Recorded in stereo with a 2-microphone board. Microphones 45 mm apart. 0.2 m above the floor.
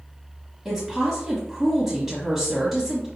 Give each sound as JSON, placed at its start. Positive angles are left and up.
{"t": 0.7, "sound": "a woman speaking", "side_deg": -5, "distance_m": 1.1}